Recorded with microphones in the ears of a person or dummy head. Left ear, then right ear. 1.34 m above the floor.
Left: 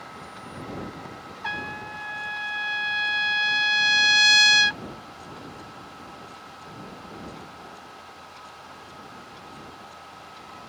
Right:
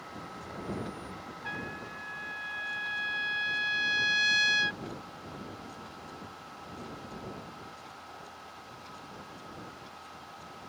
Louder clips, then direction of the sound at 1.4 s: Left 8 dB; 30° left (ahead or behind).